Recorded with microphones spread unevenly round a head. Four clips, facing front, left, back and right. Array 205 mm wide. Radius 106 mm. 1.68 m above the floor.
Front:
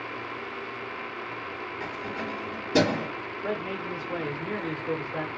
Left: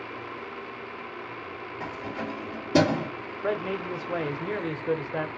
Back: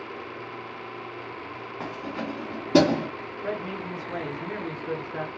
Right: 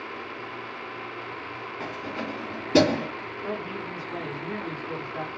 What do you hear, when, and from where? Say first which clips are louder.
1.8 s keys jangling: even, back 3 dB; 165° right, 2.5 m
3.4 s a man speaking: left 6 dB, even; 85° left, 0.8 m